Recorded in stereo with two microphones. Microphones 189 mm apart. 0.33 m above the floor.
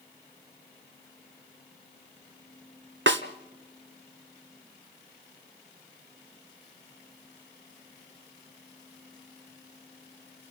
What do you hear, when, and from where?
3.1 s a snare drum: 85° right, 1.2 m